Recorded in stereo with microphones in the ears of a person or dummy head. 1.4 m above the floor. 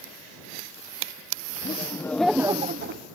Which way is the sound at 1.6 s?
20° left (ahead or behind).